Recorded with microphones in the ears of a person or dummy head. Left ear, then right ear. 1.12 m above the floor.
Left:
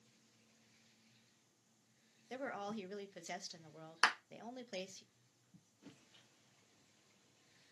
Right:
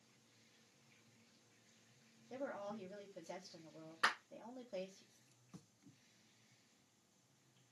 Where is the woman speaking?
55° left (ahead or behind), 0.6 m.